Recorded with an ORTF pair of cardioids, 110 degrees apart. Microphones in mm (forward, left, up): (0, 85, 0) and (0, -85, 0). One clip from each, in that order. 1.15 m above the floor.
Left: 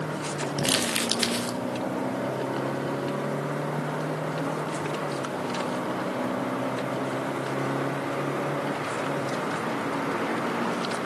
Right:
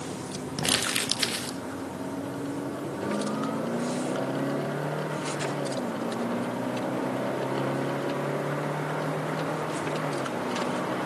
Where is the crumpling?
Straight ahead, 1.9 m.